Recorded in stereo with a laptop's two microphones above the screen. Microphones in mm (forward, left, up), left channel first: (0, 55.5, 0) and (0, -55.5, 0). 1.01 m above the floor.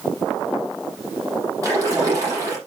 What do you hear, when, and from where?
1.6 s a splash: 30° right (ahead or behind), 7 m